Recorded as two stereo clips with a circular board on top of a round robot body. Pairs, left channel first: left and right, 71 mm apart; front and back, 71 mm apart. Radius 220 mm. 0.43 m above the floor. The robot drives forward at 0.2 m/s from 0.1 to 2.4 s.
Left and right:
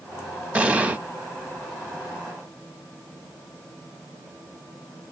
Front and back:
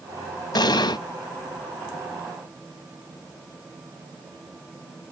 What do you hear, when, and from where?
0.6 s an explosion: 15° right, 0.7 m; by 1.0 s 20° right, 0.6 m